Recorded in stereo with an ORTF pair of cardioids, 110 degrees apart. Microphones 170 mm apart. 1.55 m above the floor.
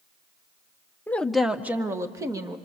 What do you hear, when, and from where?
1.1 s a woman speaking: 10° left, 0.9 m; by 2.6 s 20° right, 2 m